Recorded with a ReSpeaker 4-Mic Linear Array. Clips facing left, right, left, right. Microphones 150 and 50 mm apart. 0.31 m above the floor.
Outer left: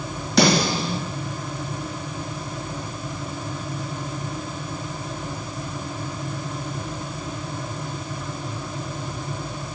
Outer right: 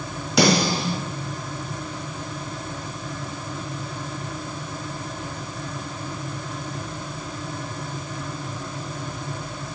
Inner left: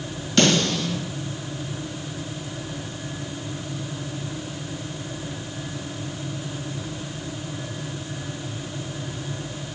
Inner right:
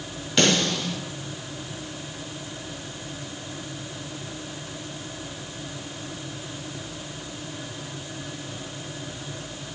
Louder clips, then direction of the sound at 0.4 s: Even, inner left 2 dB; 10° right (ahead or behind).